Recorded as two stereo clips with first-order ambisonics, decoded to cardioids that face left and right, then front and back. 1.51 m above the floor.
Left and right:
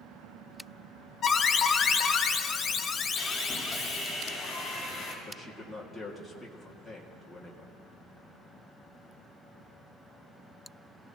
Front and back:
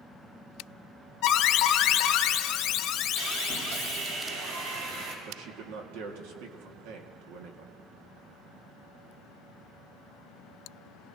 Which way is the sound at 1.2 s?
30° left.